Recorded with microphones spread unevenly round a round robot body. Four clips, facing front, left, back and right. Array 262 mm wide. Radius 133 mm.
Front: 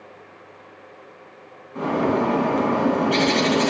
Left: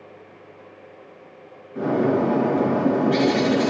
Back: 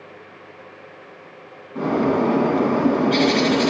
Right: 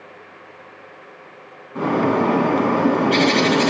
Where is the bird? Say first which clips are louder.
Right 2 dB, back 2 dB; 85° right, 3 m.